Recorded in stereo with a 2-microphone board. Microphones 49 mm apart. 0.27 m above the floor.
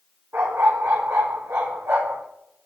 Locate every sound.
0.3 s a dog barking: 60° right (ahead or behind), 3.5 m